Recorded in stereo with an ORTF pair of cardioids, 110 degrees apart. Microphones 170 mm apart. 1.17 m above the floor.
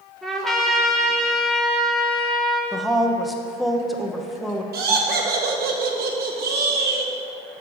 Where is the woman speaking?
Straight ahead, 0.8 m.